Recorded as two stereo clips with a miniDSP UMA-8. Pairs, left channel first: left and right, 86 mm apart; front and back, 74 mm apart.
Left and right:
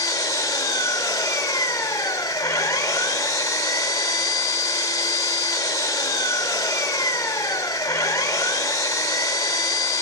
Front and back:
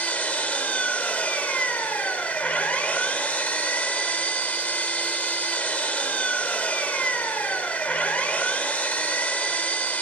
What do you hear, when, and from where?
0.0 s an engine running: 60° left, 1.1 m